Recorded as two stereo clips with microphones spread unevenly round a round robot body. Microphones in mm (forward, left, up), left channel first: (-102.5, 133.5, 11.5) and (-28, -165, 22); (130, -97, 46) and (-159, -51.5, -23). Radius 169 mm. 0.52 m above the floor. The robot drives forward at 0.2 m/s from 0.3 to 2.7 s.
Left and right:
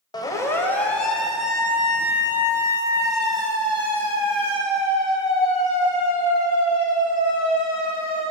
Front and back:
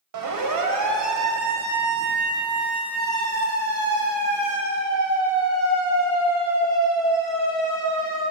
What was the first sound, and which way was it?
A siren, straight behind.